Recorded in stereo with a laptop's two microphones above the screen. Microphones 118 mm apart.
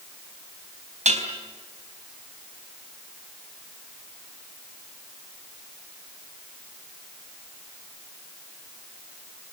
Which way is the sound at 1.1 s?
80° right.